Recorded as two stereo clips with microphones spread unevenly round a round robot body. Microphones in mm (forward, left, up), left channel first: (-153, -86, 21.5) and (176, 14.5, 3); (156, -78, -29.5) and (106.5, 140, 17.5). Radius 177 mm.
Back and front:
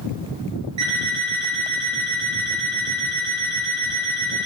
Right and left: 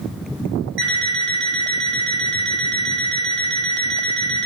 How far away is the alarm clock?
About 1.4 m.